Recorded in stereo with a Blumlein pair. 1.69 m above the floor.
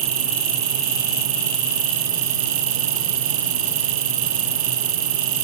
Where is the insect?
60° right.